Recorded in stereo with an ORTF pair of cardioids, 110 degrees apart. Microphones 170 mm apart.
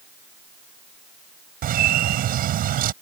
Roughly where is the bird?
Ahead right.